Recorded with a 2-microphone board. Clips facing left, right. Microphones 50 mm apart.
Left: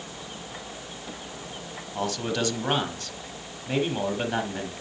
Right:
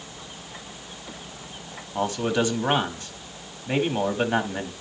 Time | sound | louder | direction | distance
1.9 | a man speaking | right 4 dB | 20° right (ahead or behind) | 1.1 m